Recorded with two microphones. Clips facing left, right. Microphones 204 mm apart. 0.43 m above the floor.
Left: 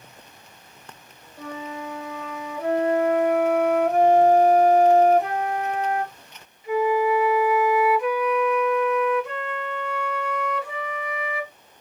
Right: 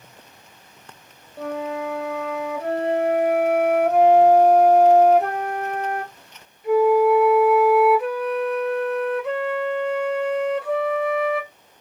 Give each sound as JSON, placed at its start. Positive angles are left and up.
{"t": 1.4, "sound": "a flute", "side_deg": -65, "distance_m": 0.9}